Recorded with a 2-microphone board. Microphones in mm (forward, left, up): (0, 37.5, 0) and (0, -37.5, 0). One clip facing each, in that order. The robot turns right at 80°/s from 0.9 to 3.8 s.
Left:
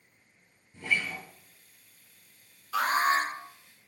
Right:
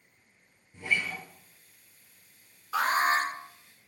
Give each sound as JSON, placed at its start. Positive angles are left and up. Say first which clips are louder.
{"t": 0.7, "sound": "a guitar", "louder": "even", "side_deg": -15, "distance_m": 1.3}
{"t": 2.7, "sound": "an alarm", "louder": "even", "azimuth_deg": -110, "distance_m": 1.8}